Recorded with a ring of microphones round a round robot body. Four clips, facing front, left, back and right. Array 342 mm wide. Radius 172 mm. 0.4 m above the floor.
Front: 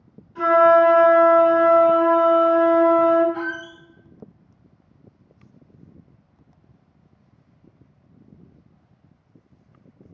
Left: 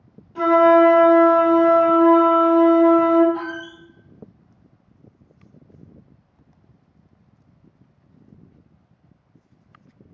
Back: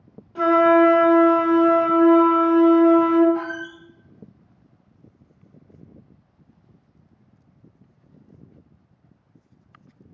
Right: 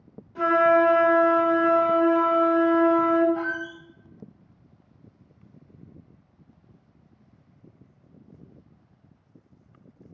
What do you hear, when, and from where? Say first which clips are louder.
0.3 s a flute: left 6 dB, front 1 dB; 170° left, 1.8 m
3.3 s a squeak: even, back 1 dB; 70° left, 0.6 m